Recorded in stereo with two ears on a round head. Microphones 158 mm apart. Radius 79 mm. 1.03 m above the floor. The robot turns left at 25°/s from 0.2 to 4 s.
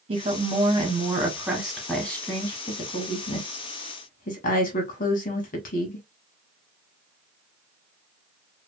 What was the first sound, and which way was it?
A woman speaking, 140° right.